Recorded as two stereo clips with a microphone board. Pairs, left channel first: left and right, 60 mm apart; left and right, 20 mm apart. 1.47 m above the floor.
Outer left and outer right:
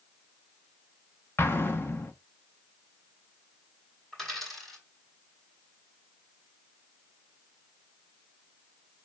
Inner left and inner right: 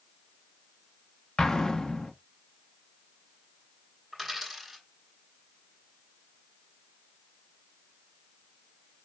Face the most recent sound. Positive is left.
turn(degrees=0)  # may be behind; listen again after turning